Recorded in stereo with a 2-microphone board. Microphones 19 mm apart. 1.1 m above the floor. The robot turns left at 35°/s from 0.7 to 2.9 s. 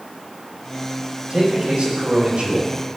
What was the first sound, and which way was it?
A man speaking, 45° right.